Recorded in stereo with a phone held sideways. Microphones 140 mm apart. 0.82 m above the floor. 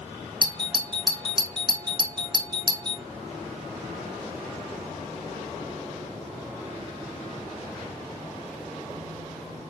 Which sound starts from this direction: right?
A doorbell, at 0.4 s.